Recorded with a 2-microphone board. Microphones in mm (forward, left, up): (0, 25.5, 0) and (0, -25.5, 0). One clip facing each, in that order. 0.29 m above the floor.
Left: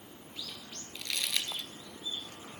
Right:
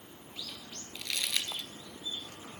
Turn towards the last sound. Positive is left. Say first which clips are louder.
# even
turn(degrees=-10)  # may be behind; listen again after turning